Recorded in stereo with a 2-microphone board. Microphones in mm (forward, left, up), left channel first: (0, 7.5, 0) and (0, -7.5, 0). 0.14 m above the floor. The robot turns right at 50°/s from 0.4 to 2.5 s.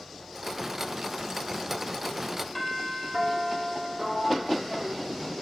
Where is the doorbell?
Centre (ahead or behind), 4.5 m.